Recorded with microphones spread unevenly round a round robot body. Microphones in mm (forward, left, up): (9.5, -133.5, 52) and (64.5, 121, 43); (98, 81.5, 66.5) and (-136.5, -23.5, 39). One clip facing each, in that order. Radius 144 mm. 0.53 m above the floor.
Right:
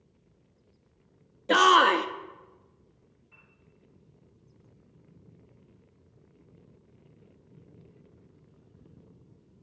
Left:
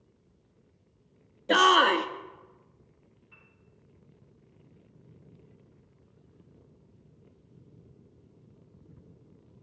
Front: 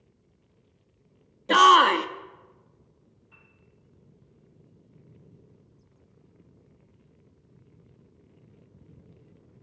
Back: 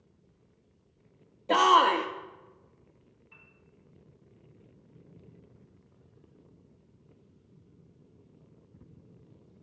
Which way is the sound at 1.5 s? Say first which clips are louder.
Even, front 3 dB; 15° right.